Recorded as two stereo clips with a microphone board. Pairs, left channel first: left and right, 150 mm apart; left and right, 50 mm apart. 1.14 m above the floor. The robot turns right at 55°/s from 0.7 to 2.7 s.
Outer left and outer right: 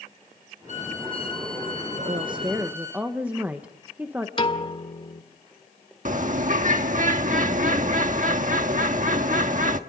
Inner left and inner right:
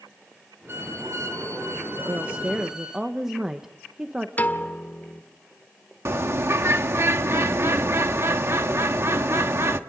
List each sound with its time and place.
0.7 s a violin: 125° right, 5 m; by 3.0 s 15° right, 5 m
2.0 s a woman speaking: 50° right, 1.2 m; by 4.3 s 10° right, 1.2 m
4.4 s a piano: 35° left (ahead or behind), 1.5 m
6.0 s a bird: 60° right (ahead or behind), 1.3 m